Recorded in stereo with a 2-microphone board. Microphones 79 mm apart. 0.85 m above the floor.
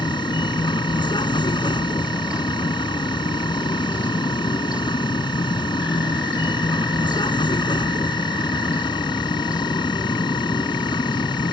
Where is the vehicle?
70° left (ahead or behind).